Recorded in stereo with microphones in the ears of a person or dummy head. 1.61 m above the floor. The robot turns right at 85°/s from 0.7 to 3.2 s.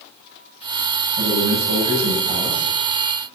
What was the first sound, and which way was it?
A man speaking, 135° right.